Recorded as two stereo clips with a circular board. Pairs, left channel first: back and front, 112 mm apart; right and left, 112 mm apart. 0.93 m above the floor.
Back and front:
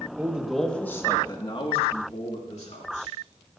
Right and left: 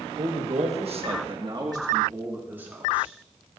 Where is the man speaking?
75° left, 1.6 m; by 3.1 s 170° left, 3 m.